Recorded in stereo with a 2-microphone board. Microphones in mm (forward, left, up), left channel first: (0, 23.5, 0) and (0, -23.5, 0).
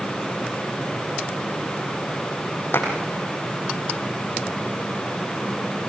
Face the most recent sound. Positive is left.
turn(degrees=65)  # may be behind; listen again after turning